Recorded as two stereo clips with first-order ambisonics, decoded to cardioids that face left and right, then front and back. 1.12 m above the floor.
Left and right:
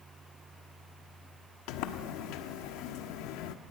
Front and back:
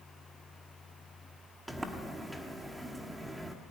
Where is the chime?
I don't hear a chime.